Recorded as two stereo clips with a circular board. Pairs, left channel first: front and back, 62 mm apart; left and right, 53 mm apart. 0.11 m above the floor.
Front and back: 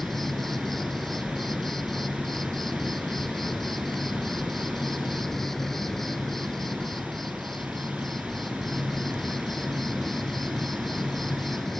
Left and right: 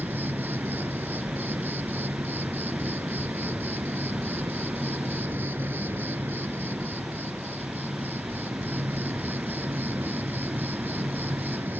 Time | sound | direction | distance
0.0 | an insect | 85° right | ?